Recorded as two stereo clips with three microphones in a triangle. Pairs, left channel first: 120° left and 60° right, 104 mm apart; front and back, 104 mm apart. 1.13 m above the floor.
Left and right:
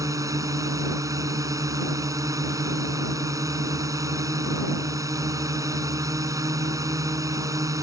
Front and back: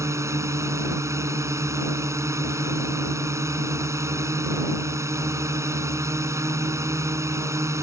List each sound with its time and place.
0.0 s a drone: 120° right